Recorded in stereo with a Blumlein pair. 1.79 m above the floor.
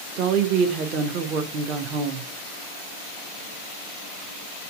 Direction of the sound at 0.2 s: 35° right.